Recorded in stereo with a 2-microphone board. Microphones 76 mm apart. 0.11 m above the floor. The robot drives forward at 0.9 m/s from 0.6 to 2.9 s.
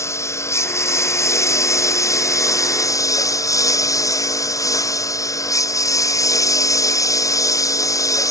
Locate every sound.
0.0 s a lawn mower: 35° left (ahead or behind); by 8.3 s 45° left (ahead or behind)